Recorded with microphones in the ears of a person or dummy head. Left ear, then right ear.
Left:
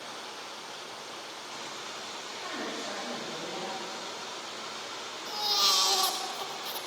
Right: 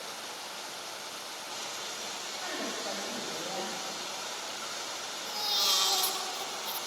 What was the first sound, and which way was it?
Running water, 65° right (ahead or behind).